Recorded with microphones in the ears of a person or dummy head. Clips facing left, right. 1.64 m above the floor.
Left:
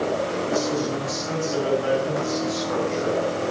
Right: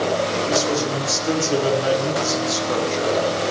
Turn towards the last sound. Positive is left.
turn(degrees=-35)  # may be behind; listen again after turning